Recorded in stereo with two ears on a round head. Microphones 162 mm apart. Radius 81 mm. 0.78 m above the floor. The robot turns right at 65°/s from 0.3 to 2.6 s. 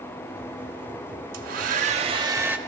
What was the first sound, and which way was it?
A hair dryer, 90° right.